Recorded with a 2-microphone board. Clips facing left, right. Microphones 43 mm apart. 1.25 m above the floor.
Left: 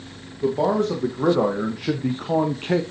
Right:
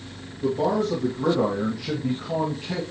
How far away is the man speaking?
About 1.8 m.